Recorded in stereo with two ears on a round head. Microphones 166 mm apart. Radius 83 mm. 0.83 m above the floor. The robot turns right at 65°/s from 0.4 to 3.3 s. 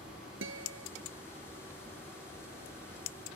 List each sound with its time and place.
0.4 s a guitar: 75° right (ahead or behind)